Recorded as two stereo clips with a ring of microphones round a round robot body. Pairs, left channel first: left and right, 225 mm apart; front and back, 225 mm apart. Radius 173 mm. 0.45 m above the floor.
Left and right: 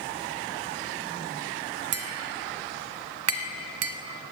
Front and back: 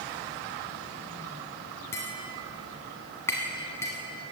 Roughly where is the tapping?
Right.